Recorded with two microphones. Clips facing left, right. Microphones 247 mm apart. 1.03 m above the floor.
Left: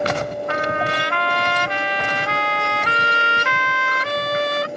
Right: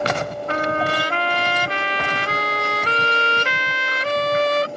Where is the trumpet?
35° right (ahead or behind).